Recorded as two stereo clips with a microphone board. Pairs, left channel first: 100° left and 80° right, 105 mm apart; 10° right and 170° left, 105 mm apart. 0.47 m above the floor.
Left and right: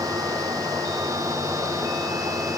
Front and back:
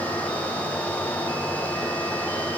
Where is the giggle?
No giggle in this recording.